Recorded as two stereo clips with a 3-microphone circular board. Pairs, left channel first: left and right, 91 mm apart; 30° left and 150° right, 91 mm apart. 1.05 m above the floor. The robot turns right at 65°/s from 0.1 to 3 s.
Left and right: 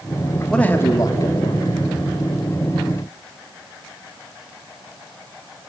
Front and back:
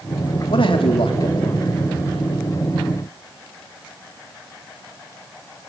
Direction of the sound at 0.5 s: 10° left.